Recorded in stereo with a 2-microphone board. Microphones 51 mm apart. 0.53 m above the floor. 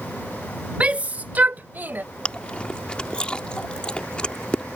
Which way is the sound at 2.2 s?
20° left (ahead or behind).